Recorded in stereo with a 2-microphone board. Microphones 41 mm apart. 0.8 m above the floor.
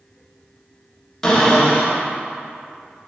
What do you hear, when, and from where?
1.2 s a cupboard door: 20° left (ahead or behind), 1.6 m